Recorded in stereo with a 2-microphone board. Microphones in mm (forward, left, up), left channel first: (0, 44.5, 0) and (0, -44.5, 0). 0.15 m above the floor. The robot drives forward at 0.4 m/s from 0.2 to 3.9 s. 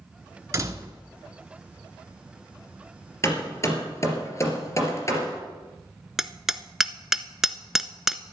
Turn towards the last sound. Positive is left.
turn(degrees=-5)  # may be behind; listen again after turning